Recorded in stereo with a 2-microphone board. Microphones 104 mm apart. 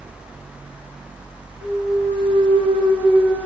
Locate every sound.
1.6 s a clunk: 85° right, 7 m